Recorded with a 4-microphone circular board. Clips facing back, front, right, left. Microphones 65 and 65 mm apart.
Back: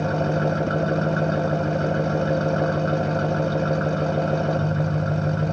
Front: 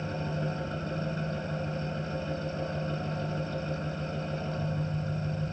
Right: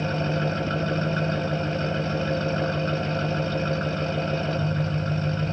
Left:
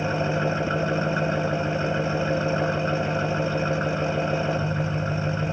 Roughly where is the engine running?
Behind.